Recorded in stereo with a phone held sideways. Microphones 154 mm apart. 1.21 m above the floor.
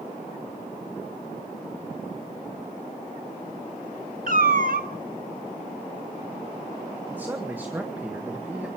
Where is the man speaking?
15° right (ahead or behind), 1.7 m.